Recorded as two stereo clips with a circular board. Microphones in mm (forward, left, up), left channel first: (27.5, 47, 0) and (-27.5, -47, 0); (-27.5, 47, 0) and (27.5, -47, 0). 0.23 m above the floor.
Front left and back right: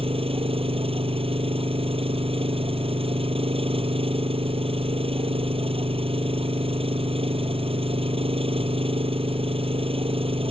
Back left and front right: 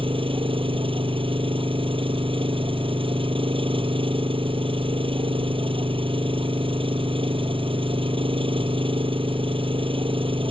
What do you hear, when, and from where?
0.0 s an engine running: 95° right